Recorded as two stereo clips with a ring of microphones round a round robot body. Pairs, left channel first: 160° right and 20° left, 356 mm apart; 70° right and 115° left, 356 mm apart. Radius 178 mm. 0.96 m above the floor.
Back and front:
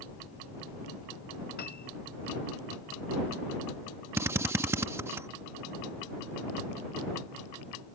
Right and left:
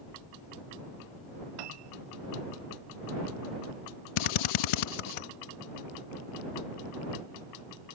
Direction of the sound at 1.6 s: 135° left.